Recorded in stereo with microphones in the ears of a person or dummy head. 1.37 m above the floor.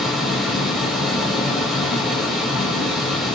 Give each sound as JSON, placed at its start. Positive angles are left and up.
{"t": 0.0, "sound": "a fan", "side_deg": -5, "distance_m": 1.0}